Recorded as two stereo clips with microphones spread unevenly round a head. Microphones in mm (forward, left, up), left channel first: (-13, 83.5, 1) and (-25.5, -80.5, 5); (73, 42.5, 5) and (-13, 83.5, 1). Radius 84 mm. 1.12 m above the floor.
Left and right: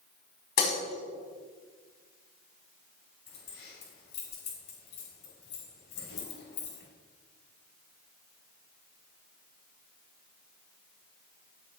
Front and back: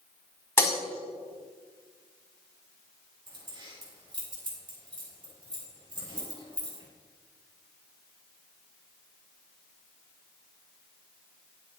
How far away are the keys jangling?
About 5.5 m.